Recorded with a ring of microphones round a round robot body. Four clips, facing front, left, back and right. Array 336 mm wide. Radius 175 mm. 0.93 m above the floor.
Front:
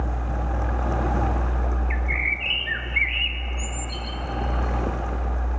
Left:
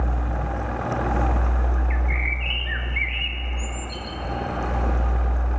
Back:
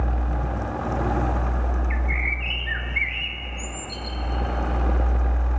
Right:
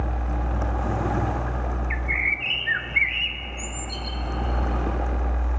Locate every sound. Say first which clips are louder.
1.9 s a bird: right 1 dB, even; 85° right, 0.9 m